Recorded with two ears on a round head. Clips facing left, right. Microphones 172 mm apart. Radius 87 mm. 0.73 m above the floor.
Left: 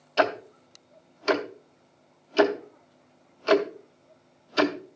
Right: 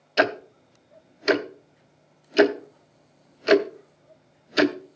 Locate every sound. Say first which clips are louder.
0.2 s ticking: right 1 dB; 20° right (ahead or behind), 0.7 m